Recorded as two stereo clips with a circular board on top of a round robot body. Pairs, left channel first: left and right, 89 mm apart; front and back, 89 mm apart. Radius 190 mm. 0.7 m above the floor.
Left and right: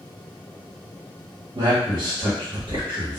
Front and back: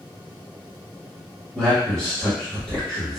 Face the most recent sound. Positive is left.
turn(degrees=-100)